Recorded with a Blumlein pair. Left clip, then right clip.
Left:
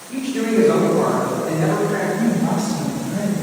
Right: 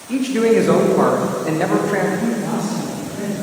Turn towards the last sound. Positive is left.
turn(degrees=40)